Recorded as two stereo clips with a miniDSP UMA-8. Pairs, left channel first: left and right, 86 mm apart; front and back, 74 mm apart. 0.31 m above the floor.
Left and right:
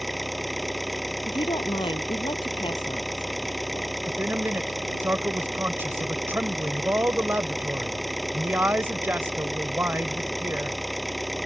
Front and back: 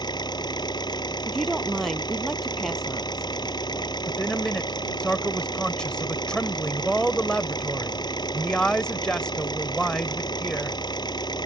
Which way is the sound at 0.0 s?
Straight ahead.